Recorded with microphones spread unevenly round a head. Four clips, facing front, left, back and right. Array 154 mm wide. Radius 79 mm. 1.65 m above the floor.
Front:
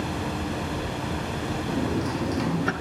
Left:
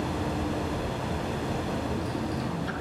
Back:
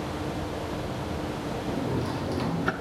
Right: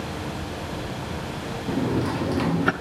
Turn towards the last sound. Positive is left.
turn(degrees=-85)